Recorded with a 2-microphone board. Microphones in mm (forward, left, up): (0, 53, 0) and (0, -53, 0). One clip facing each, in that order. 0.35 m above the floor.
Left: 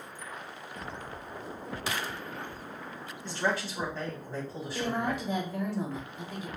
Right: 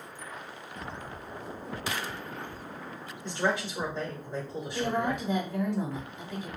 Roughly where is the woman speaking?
Centre.